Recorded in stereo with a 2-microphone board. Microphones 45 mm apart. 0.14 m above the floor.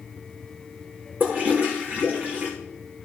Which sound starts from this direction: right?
A toilet flushing, at 1.2 s.